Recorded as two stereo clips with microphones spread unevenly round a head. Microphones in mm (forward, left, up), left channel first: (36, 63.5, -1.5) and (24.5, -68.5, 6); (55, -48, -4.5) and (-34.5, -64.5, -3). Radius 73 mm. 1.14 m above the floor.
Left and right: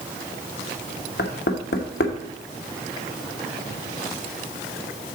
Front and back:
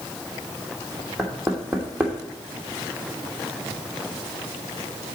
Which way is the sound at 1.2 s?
105° left.